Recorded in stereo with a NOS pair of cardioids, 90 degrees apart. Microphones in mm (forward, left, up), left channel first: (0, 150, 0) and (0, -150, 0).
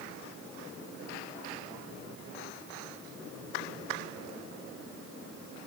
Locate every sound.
Only background noise.